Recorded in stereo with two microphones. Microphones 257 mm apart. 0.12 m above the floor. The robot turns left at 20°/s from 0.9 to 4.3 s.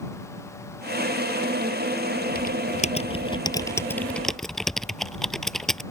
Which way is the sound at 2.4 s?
40° left.